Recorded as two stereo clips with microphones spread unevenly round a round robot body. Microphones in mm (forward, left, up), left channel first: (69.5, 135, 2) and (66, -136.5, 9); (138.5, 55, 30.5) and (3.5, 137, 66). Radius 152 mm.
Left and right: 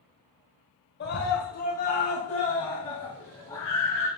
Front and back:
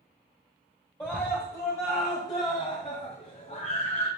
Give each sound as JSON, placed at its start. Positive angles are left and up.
{"t": 1.0, "sound": "a scream", "azimuth_deg": 45, "distance_m": 2.0}